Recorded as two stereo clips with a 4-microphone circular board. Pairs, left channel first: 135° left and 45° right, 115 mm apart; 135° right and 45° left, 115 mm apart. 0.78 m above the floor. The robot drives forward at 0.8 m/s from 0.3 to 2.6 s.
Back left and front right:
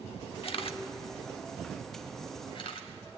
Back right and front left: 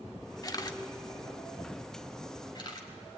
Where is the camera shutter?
170° left, 1.1 m; by 2.9 s 175° left, 3 m.